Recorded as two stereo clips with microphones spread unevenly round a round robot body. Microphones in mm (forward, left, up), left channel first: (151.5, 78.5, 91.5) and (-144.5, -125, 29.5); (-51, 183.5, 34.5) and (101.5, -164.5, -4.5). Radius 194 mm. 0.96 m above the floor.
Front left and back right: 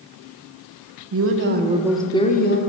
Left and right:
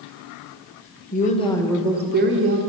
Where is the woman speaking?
175° right, 1.1 m; by 2.6 s 30° right, 1.0 m.